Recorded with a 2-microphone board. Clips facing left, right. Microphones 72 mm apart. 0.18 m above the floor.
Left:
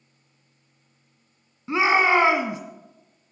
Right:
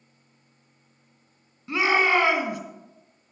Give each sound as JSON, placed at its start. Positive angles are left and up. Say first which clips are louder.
{"t": 1.7, "sound": "a shout", "louder": "left 2 dB", "side_deg": 25, "distance_m": 1.5}